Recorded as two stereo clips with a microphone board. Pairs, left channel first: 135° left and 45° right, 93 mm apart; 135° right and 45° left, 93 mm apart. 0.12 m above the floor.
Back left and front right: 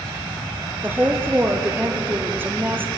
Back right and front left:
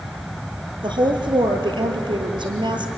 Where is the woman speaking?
20° left, 3 m.